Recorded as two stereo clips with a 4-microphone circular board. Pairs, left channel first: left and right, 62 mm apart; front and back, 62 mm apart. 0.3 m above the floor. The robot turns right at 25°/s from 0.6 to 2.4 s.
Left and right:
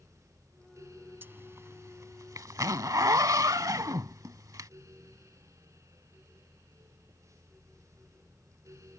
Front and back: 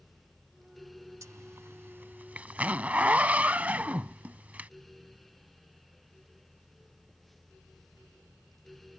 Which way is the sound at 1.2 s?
145° right.